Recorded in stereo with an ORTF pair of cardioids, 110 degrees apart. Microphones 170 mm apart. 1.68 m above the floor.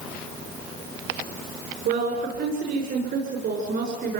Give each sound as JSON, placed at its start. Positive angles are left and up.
{"t": 1.9, "sound": "a woman speaking", "azimuth_deg": -60, "distance_m": 7.0}